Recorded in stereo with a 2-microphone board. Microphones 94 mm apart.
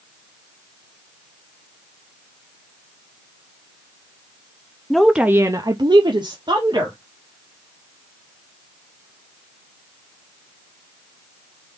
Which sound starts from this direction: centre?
A woman speaking, at 4.9 s.